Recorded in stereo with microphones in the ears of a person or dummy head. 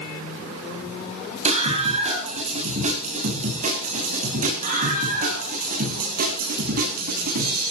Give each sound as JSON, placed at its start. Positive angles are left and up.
{"t": 1.4, "sound": "a scream", "side_deg": -35, "distance_m": 8.0}